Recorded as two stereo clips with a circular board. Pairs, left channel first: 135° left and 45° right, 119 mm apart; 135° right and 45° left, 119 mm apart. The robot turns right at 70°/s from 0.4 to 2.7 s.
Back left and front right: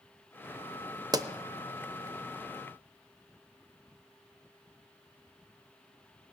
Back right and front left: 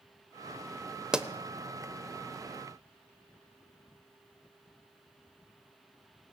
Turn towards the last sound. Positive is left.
turn(degrees=75)